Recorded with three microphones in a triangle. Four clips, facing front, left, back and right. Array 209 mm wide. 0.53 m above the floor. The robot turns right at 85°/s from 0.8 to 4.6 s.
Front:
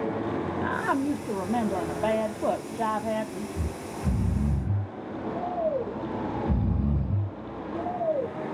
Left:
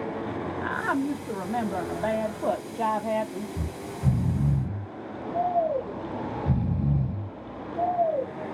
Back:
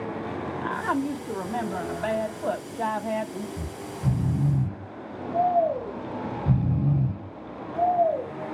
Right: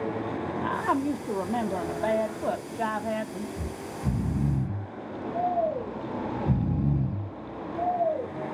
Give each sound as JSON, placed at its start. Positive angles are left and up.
{"t": 0.6, "sound": "a woman speaking", "azimuth_deg": -110, "distance_m": 0.8}
{"t": 3.6, "sound": "snoring", "azimuth_deg": 85, "distance_m": 1.7}